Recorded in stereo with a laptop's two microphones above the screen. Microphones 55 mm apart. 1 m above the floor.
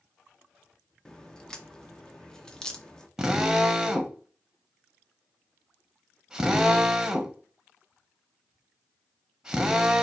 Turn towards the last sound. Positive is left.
turn(degrees=-10)  # may be behind; listen again after turning